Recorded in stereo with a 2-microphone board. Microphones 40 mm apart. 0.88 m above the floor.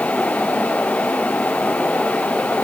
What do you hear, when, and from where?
Only background noise.